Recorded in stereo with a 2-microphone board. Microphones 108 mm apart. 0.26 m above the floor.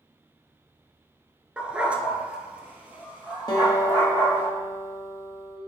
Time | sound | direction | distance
1.6 | a dog barking | 10° right (ahead or behind) | 0.7 m
3.5 | a guitar | 35° left (ahead or behind) | 1.1 m